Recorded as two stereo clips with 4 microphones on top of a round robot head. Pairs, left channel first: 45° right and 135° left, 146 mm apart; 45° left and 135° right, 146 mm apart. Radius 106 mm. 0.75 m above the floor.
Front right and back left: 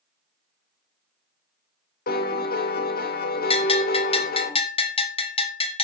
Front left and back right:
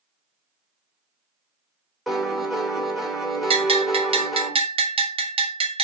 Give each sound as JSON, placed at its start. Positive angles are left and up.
{"t": 2.1, "sound": "a piano", "azimuth_deg": -45, "distance_m": 2.5}
{"t": 3.5, "sound": "a bell", "azimuth_deg": -90, "distance_m": 2.0}